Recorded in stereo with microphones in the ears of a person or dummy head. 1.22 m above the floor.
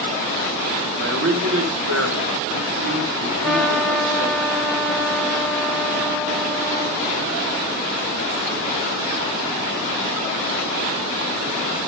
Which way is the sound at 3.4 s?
Centre (ahead or behind).